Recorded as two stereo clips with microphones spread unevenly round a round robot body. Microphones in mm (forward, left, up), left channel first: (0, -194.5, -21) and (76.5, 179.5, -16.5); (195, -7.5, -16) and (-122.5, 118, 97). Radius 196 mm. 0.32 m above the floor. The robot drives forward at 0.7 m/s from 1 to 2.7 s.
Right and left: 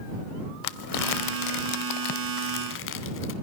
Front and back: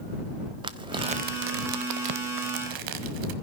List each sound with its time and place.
0.6 s crumpling: 110° right, 0.7 m; by 3.3 s 160° right, 1.5 m